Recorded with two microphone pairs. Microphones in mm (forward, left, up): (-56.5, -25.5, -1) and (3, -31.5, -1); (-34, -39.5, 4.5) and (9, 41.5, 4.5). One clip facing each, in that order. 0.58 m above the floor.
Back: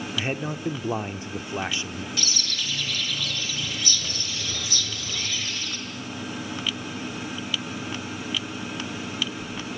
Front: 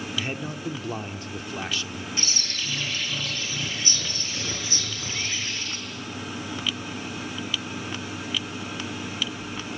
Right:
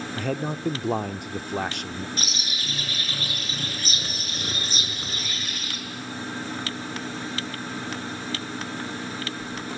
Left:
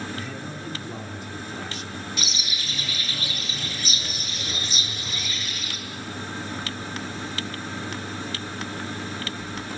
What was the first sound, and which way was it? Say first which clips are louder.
A man speaking: back 4 dB, right 6 dB; 125° right.